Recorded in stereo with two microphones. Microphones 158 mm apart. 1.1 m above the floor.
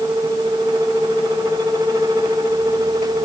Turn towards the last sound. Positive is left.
No sound to turn to.